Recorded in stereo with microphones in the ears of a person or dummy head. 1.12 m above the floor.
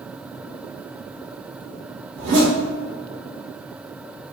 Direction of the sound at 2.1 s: 35° right (ahead or behind).